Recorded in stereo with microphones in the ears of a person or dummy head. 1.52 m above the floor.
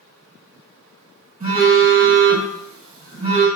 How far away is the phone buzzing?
About 1.3 m.